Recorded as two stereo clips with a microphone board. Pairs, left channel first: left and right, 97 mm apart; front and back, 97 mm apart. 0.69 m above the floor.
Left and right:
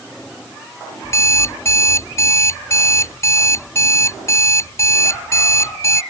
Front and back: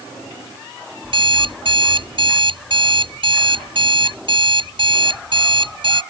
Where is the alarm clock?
150° left.